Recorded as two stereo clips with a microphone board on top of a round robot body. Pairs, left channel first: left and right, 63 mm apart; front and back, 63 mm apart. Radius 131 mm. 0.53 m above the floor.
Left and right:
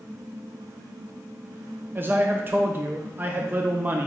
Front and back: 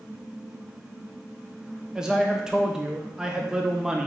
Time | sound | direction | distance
1.9 | a man speaking | 110° right | 0.7 m